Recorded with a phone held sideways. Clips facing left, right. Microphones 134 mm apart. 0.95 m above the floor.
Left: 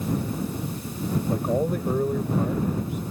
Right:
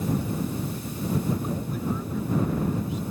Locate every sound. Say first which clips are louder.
1.3 s a man speaking: left 5 dB; 60° left (ahead or behind)